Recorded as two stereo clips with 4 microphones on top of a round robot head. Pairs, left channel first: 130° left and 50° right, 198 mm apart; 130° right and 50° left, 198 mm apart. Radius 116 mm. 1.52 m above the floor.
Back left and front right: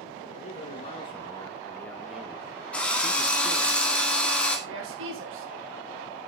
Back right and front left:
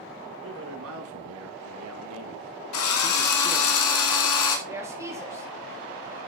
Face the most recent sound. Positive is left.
turn(degrees=-25)